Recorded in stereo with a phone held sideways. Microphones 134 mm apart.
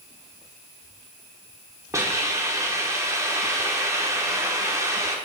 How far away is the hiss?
About 1.1 m.